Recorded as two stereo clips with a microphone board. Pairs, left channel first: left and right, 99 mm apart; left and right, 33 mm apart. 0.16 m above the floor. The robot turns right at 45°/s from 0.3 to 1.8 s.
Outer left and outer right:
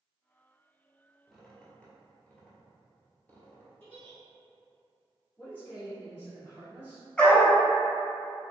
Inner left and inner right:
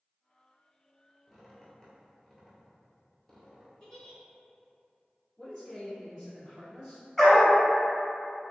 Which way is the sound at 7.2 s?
15° left (ahead or behind).